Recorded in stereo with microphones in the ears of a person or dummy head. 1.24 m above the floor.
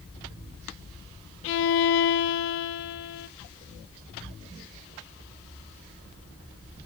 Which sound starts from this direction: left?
A violin, at 1.4 s.